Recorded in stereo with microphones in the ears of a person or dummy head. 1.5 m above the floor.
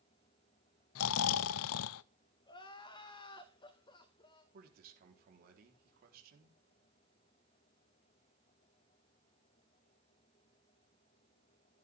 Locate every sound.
0.9 s snoring: 85° left, 0.5 m
2.5 s crying: 20° left (ahead or behind), 2 m
4.5 s a man speaking: 60° right (ahead or behind), 4.5 m